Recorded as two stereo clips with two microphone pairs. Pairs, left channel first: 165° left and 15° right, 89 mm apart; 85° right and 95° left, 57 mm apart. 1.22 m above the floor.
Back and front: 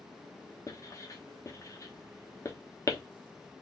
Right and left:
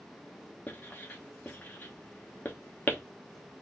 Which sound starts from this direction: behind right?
Writing, at 0.7 s.